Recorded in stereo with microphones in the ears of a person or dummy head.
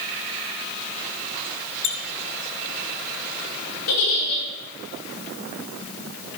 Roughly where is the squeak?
Left.